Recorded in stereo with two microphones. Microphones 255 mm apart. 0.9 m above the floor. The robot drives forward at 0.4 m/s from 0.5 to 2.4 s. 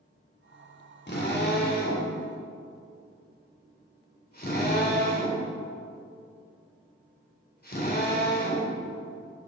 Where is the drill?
45° left (ahead or behind), 3 m; by 8.7 s 40° left (ahead or behind), 3.5 m.